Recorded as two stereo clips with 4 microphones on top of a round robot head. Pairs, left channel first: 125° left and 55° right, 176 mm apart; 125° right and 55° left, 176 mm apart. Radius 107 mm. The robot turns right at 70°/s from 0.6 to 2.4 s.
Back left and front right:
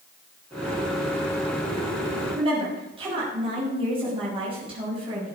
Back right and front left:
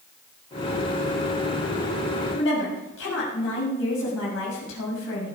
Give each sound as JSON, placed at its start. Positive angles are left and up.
{"t": 2.3, "sound": "a woman speaking", "azimuth_deg": -120, "distance_m": 6.5}